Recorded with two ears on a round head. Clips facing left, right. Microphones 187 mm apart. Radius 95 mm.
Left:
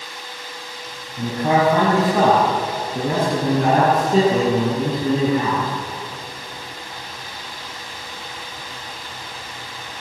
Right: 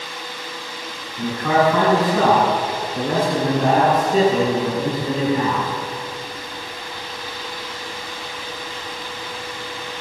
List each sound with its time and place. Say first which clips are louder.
1.2 s a man speaking: even; 35° left (ahead or behind), 8 m; by 5.7 s 60° left (ahead or behind), 11.5 m